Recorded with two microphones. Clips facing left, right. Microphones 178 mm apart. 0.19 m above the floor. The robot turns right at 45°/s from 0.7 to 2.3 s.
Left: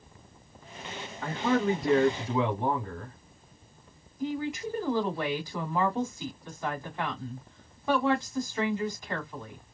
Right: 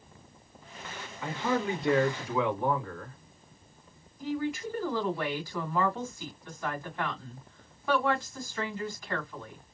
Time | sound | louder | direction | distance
1.2 | a man speaking | left 3 dB | 80° left | 1.4 m
4.2 | a woman speaking | even | 20° left (ahead or behind) | 1.7 m